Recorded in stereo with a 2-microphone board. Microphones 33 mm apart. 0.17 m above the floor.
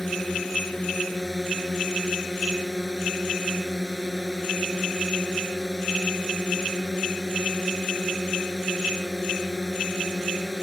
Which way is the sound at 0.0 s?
10° left (ahead or behind).